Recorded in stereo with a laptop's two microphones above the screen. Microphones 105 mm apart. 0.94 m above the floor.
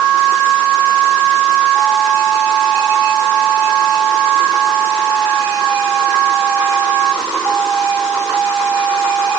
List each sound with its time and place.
Only background noise.